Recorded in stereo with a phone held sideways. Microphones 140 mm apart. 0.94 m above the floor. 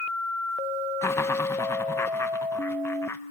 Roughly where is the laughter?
Centre.